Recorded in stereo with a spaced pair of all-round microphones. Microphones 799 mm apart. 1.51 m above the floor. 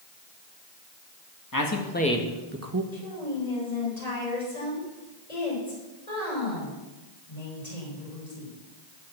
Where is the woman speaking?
55° left (ahead or behind), 8.5 m.